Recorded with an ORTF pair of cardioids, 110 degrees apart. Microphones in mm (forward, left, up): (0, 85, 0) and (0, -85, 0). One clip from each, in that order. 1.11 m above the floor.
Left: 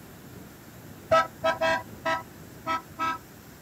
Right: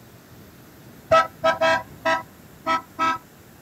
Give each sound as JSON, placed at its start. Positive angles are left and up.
{"t": 1.1, "sound": "a car horn", "azimuth_deg": -30}